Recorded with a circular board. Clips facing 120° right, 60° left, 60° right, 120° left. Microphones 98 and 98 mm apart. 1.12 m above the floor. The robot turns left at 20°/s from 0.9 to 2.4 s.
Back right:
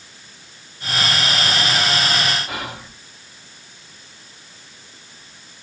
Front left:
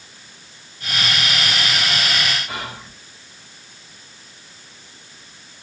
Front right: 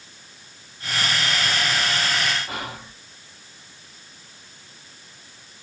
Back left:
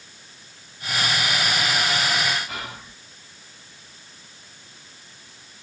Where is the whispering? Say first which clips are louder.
Back right 1 dB, front right 3 dB; 100° right, 1.8 m.